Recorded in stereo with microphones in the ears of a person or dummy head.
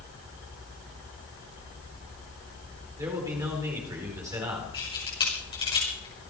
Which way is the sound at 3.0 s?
15° right (ahead or behind).